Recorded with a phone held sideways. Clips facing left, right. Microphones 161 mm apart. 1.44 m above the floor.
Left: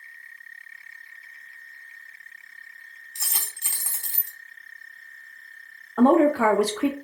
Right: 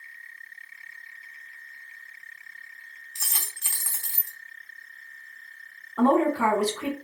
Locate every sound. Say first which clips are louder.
3.1 s a dropped coin: left 1 dB; 20° left (ahead or behind), 0.9 m
6.0 s a woman speaking: left 4 dB; 80° left, 0.7 m